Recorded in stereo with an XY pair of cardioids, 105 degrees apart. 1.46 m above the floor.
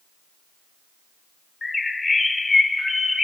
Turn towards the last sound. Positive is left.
turn(degrees=20)